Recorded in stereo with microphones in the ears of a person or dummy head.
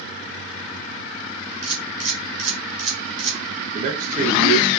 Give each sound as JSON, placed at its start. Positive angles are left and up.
{"t": 1.6, "sound": "a camera shutter", "side_deg": -35, "distance_m": 3.0}
{"t": 3.7, "sound": "a man speaking", "side_deg": -40, "distance_m": 1.3}